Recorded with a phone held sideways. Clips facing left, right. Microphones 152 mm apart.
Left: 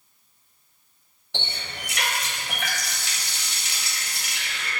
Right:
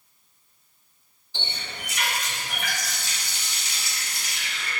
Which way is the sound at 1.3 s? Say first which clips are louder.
Left 2 dB; 75° left (ahead or behind).